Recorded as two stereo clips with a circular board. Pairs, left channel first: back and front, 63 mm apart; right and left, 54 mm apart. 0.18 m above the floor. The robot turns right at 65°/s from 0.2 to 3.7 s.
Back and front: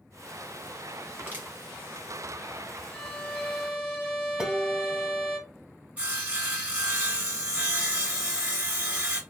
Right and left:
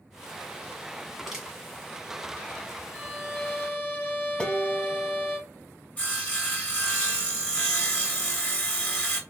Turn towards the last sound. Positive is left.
turn(degrees=-50)